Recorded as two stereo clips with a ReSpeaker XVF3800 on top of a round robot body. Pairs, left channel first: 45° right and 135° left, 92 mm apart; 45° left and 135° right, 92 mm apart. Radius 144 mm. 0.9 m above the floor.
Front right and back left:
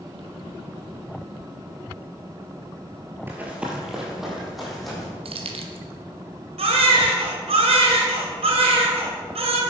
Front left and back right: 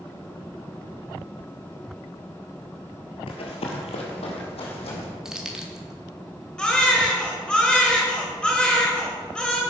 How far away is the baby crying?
About 2.5 m.